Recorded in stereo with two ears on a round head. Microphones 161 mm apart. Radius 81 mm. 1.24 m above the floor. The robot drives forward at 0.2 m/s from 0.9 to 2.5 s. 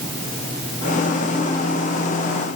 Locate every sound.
Only background noise.